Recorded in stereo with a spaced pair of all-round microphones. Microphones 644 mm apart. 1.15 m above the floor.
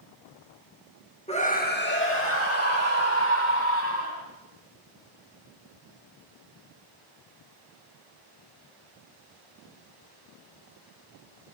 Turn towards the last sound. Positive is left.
turn(degrees=25)  # may be behind; listen again after turning